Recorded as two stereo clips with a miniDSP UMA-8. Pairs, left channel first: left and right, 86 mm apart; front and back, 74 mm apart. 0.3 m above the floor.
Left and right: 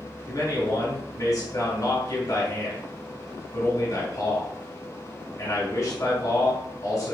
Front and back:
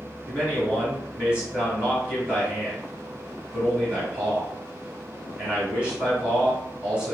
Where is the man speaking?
110° left, 2 m.